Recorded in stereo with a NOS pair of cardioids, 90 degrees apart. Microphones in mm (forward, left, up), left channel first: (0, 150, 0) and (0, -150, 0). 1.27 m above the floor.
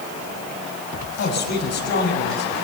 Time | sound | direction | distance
1.2 | a man speaking | 60° left | 6.5 m